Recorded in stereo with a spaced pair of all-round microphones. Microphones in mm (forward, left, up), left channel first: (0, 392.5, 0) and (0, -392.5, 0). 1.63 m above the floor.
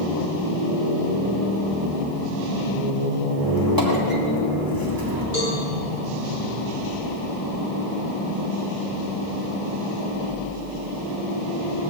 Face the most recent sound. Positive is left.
turn(degrees=-70)  # may be behind; listen again after turning